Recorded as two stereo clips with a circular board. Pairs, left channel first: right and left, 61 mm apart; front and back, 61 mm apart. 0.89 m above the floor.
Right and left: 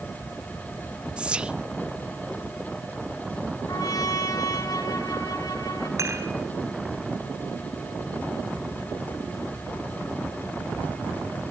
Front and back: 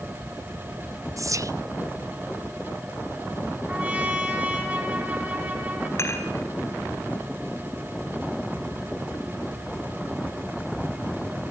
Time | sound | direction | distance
1.2 | whispering | 160° left | 0.7 m
3.7 | a trumpet | 110° right | 5 m
6.0 | dishes clattering | 50° left | 4 m